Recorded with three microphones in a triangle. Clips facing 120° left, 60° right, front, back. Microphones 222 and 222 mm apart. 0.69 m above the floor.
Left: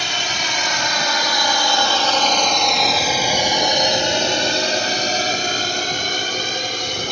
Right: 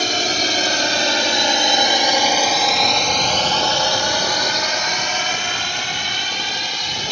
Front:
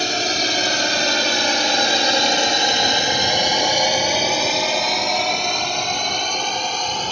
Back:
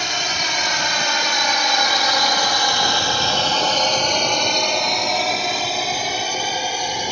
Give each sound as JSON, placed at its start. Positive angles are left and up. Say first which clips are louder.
{"t": 0.0, "sound": "a drone", "louder": "right 7 dB, front 6 dB", "azimuth_deg": -35}